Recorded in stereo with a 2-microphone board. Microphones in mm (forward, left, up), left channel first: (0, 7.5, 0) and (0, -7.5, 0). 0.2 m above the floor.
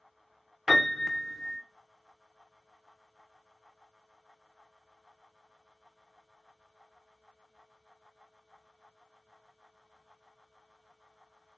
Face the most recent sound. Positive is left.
turn(degrees=-30)  # may be behind; listen again after turning